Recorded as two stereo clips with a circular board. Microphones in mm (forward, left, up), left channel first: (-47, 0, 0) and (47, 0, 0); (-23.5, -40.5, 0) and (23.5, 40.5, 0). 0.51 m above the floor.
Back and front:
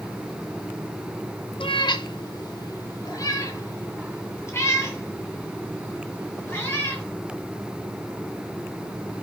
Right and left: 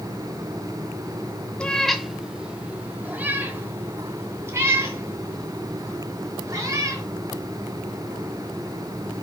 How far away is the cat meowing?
About 1.0 m.